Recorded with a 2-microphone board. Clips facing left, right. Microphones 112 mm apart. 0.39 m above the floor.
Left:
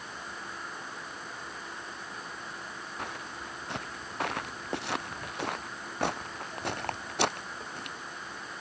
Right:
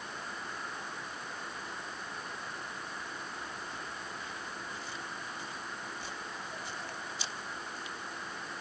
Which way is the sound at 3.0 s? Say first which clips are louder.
Left 3 dB; 75° left (ahead or behind).